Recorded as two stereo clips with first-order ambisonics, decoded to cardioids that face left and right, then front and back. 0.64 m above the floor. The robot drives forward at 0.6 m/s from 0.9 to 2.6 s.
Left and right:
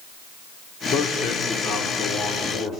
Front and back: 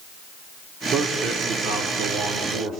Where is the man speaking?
135° left, 1.1 m; by 2.8 s 155° left, 1.9 m.